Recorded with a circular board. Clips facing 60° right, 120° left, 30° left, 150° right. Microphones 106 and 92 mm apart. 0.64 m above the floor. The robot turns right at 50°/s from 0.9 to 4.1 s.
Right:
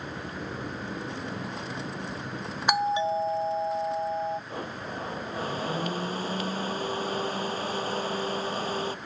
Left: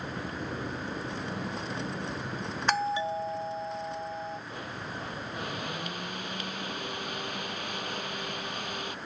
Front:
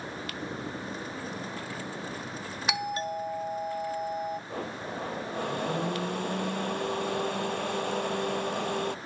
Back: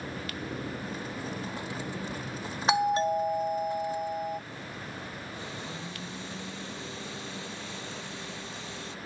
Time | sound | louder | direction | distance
2.7 | a doorbell | right 4 dB, back 7 dB | 125° right | ?
4.5 | a blender | right 3 dB, front 6 dB | 5° right | ?